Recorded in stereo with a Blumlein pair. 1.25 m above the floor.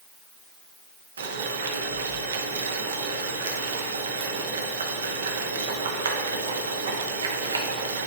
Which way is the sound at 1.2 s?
70° right.